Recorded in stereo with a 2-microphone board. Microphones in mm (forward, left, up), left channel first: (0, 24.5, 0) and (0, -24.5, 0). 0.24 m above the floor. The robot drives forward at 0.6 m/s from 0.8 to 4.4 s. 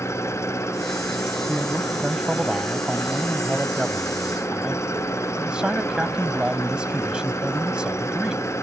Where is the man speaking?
15° right (ahead or behind); by 8.4 s 20° right (ahead or behind).